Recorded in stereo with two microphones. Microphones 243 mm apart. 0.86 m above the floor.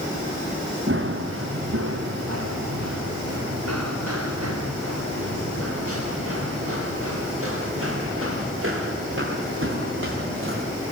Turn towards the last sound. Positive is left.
turn(degrees=-55)  # may be behind; listen again after turning